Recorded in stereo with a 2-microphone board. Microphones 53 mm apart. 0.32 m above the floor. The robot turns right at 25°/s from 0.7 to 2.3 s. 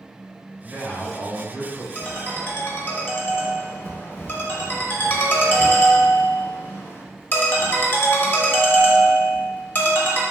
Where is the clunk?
I don't hear a clunk.